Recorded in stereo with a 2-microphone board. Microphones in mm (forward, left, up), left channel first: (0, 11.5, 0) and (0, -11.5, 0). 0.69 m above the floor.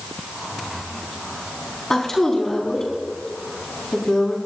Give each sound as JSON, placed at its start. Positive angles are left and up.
{"t": 1.9, "sound": "a woman speaking", "side_deg": 25, "distance_m": 5.0}